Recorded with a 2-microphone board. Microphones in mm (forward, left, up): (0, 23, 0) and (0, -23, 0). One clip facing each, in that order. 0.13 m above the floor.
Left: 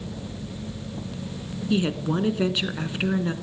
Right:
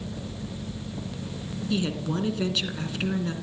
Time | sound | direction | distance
1.7 | a woman speaking | 25° left (ahead or behind) | 1.4 m